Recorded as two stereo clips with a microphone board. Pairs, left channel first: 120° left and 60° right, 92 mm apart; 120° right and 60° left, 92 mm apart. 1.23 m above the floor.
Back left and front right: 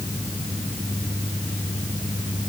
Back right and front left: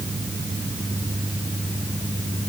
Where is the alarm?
I don't hear an alarm.